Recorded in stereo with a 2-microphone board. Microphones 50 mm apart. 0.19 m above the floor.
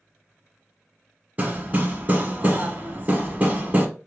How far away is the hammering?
About 1.2 m.